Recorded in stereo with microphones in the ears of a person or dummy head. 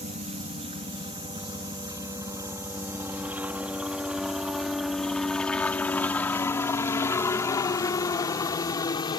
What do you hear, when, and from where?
0.0 s a helicopter: 40° right (ahead or behind); by 9.2 s 15° left (ahead or behind)